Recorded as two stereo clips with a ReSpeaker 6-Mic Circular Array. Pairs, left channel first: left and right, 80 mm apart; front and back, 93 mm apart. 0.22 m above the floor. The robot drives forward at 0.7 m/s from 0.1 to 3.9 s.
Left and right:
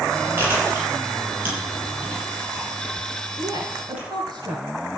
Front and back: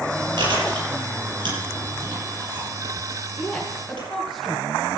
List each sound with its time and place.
0.4 s chewing: 155° right, 6 m; by 4.1 s 160° right, 8 m
3.4 s a woman speaking: 85° right, 2.5 m; by 4.7 s 90° right, 2.5 m